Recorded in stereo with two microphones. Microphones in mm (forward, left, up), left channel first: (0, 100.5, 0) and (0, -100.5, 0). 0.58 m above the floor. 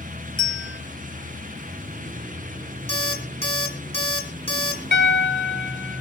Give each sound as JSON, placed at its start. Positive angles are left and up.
{"t": 0.4, "sound": "a bell", "side_deg": 80, "distance_m": 2.0}
{"t": 2.9, "sound": "an alarm clock", "side_deg": 30, "distance_m": 3.0}
{"t": 4.9, "sound": "a piano", "side_deg": 65, "distance_m": 1.6}